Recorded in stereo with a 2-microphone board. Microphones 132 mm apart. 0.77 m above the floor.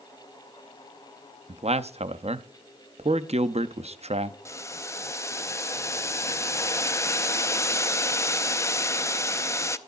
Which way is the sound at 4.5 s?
20° left (ahead or behind).